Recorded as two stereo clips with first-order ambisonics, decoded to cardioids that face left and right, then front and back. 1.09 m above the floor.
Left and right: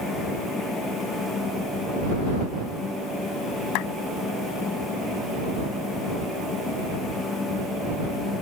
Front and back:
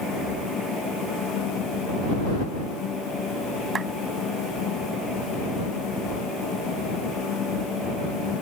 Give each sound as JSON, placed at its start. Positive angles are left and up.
{"t": 3.8, "sound": "a clap", "azimuth_deg": 110}